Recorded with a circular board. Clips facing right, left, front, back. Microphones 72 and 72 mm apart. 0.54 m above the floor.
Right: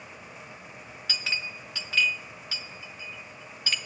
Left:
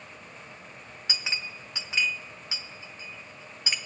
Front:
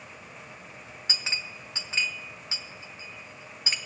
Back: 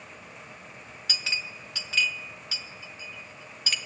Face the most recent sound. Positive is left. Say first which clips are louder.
# right 1 dB, back 1 dB
turn(degrees=35)